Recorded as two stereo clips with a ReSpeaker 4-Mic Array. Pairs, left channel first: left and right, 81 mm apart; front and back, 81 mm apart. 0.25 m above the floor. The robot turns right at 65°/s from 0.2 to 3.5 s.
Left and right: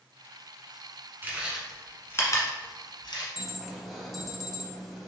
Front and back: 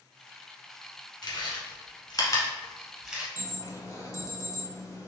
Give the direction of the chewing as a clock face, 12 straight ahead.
1 o'clock.